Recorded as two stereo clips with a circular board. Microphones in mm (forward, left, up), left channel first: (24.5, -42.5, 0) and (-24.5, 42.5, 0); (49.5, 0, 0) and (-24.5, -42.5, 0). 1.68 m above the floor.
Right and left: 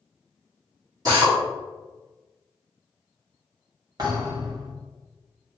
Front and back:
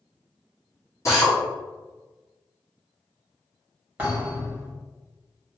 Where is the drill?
80° left, 1.9 m.